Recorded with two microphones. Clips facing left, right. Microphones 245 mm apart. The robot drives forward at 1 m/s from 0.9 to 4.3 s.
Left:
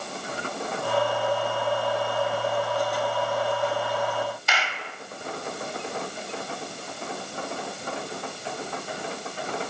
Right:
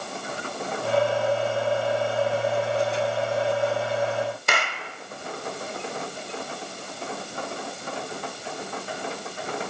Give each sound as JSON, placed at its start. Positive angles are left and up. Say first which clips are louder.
{"t": 4.5, "sound": "a clap", "louder": "right 3 dB", "side_deg": -50, "distance_m": 1.8}